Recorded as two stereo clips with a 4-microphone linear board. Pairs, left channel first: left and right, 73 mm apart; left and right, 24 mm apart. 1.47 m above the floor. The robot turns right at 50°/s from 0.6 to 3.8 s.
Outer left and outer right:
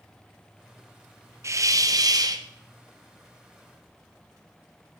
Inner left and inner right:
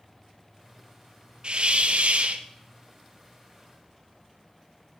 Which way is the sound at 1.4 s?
125° right.